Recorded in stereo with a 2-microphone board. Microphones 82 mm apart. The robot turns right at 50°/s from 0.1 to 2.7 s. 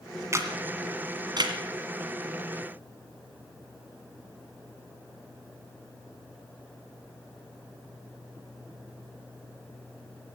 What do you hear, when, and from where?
0.3 s a camera shutter: 35° right (ahead or behind), 1.9 m; by 1.6 s 55° right (ahead or behind), 1.9 m